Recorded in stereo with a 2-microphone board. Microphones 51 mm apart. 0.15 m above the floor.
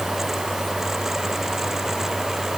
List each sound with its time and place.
Only background noise.